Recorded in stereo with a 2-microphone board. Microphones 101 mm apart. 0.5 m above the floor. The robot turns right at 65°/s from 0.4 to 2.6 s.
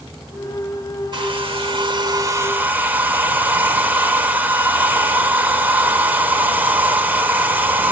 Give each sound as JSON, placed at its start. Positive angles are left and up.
{"t": 1.1, "sound": "a hair dryer", "azimuth_deg": -115, "distance_m": 1.7}